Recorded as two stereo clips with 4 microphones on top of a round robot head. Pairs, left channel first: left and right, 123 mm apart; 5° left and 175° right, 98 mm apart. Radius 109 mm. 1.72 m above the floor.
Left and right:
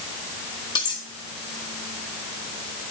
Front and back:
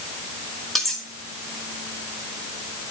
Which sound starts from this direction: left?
Cutlery clinking, at 0.8 s.